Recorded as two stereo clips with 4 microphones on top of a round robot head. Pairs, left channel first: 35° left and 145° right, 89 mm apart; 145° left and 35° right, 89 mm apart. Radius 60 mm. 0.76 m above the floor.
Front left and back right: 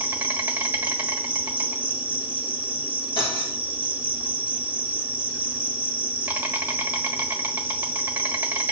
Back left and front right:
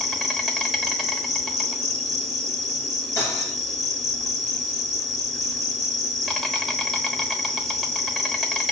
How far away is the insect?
About 1.2 m.